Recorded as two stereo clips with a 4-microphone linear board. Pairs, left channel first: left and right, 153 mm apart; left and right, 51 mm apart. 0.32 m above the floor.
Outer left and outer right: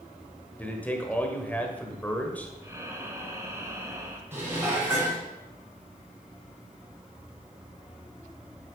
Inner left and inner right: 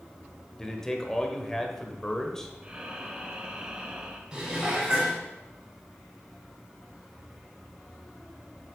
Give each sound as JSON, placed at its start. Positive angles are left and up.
{"t": 0.6, "sound": "a man speaking", "side_deg": 10, "distance_m": 1.1}
{"t": 2.6, "sound": "breathing", "side_deg": -20, "distance_m": 1.1}
{"t": 4.3, "sound": "dishes clattering", "side_deg": -15, "distance_m": 2.5}